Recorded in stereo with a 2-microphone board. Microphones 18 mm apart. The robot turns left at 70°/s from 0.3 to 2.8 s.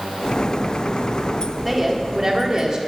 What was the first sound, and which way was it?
A woman speaking, 10° right.